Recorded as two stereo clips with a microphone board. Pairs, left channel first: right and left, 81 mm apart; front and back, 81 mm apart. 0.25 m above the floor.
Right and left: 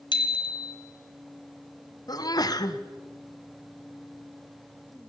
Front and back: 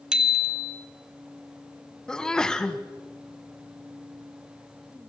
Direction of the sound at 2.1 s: 80° right.